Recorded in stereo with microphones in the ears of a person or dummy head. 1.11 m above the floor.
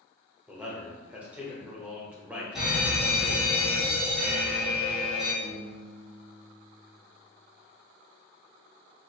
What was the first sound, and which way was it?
A man speaking, 10° right (ahead or behind).